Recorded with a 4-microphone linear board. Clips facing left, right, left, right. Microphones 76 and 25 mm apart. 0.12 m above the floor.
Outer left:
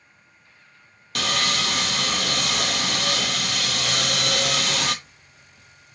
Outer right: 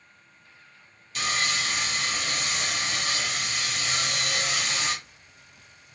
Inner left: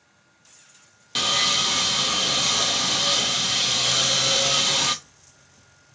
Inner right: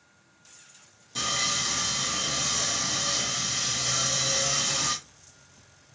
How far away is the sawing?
About 0.6 m.